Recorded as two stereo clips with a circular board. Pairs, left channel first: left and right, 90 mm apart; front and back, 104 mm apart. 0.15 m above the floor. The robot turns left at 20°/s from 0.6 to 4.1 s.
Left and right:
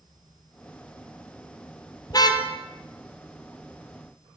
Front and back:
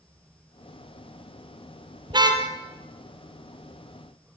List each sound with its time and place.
2.1 s a car horn: 135° left, 2.5 m; by 2.5 s 130° left, 2.5 m